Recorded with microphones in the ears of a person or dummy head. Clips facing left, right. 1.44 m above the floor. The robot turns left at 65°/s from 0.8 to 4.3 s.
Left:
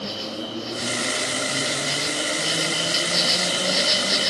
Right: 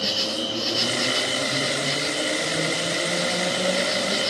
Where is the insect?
110° right, 1.9 m; by 4.3 s 20° left, 1.9 m.